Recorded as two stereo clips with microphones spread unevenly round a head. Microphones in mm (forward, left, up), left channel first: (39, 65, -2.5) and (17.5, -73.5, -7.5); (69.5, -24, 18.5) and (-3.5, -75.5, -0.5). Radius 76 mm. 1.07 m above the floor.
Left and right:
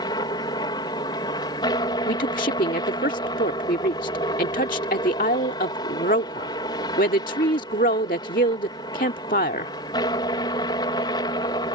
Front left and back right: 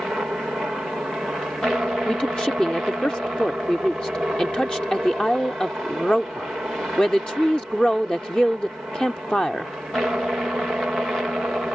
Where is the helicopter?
135° left.